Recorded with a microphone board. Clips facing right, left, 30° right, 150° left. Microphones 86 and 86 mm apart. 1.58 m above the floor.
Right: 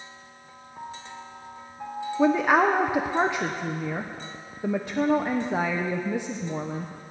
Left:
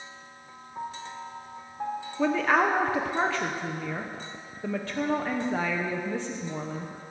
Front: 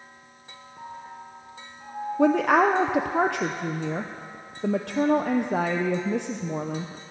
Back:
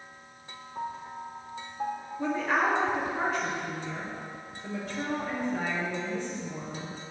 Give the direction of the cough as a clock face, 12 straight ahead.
No cough in this recording.